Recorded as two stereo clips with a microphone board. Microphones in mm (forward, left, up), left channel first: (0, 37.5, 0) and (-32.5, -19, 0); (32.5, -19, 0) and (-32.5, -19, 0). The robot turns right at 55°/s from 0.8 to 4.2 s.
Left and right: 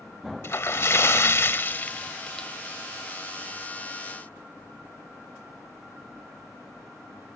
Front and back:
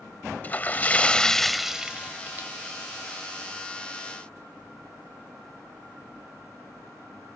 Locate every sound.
0.4 s a splash: 50° left; by 2.5 s 140° left